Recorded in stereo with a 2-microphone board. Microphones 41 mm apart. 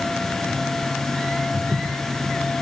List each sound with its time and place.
1.5 s footsteps: 35° right (ahead or behind), 8 m